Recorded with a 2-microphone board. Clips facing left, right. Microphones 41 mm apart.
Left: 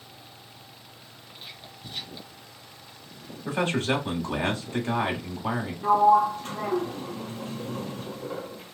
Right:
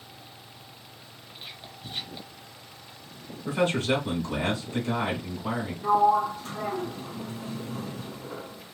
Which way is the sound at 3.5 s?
35° left (ahead or behind).